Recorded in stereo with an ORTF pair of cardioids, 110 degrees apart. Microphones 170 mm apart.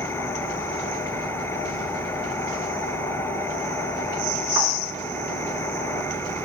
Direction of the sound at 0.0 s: 15° left.